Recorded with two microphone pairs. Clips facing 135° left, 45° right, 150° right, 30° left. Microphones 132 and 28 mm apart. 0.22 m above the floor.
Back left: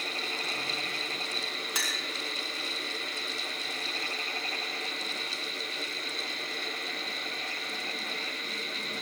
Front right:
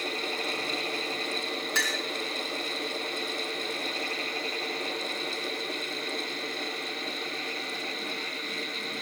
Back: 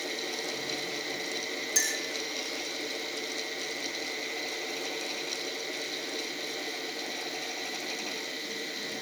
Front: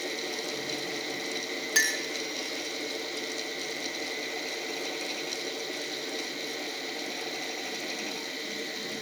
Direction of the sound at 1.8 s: 60° left.